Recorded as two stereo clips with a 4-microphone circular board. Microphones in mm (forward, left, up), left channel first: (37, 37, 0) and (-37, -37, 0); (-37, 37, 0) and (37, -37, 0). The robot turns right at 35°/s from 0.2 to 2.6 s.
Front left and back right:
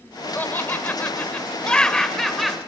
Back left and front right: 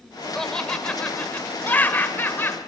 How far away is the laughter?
About 0.8 m.